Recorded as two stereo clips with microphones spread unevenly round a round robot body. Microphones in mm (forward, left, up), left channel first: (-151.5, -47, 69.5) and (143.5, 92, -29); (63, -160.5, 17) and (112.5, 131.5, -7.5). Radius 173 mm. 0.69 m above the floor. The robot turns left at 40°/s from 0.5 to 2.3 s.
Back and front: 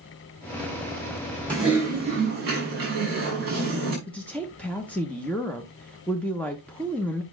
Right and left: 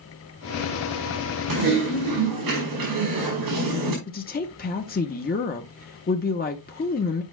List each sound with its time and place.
1.5 s typing on a keyboard: 115° left, 5 m; by 4.0 s 85° left, 5 m
4.1 s a woman speaking: 50° right, 0.8 m